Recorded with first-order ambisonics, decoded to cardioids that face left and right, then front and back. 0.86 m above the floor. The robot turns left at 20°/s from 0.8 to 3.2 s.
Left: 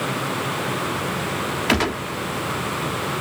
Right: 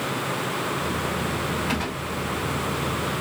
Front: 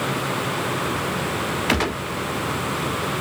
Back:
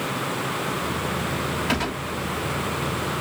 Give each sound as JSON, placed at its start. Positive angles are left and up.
{"t": 1.7, "sound": "a gunshot", "azimuth_deg": 55, "distance_m": 0.7}